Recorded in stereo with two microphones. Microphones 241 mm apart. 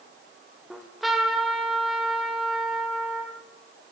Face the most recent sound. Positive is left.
turn(degrees=0)  # may be behind; listen again after turning